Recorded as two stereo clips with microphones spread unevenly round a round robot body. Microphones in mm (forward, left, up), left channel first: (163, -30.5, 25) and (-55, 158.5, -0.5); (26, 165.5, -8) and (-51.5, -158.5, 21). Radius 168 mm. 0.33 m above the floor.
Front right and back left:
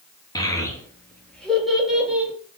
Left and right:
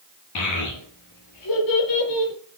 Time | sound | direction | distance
0.3 | a child speaking | 35° left | 5 m